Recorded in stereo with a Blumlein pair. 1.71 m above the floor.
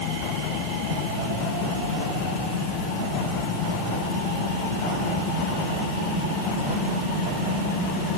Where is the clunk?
I don't hear a clunk.